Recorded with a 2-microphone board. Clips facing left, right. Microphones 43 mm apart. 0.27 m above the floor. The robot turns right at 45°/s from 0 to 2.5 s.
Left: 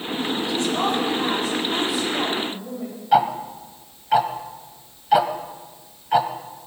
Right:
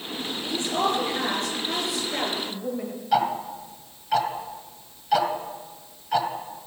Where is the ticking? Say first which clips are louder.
Left 5 dB; 15° left (ahead or behind), 1.1 m.